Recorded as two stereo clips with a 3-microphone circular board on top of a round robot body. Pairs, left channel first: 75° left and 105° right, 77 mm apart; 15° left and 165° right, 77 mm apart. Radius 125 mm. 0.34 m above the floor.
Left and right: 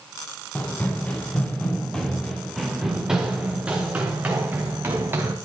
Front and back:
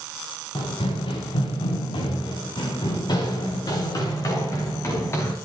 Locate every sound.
0.6 s running footsteps: 5° left, 3 m; by 5.3 s 45° right, 3.5 m